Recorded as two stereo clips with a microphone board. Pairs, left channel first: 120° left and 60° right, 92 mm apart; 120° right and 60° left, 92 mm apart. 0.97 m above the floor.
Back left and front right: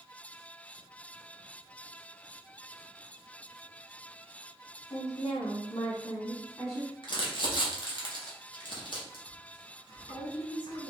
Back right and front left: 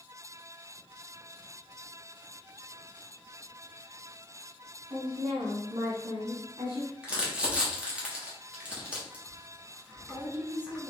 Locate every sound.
4.9 s a woman speaking: 90° left, 1.9 m; by 6.9 s 60° left, 1.0 m
7.0 s crumpling: 135° left, 1.3 m